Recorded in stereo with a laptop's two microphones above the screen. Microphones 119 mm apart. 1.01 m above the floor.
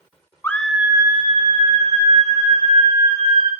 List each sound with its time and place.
0.4 s a scream: 20° left (ahead or behind), 0.9 m; by 3.5 s 75° right (ahead or behind), 4.5 m